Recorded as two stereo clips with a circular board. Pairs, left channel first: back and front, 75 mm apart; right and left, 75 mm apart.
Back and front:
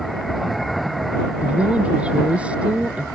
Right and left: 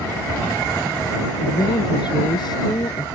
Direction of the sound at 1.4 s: 75° right.